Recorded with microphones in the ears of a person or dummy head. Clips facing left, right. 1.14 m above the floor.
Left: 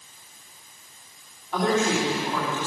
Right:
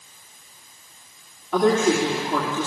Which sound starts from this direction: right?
A woman speaking, at 1.5 s.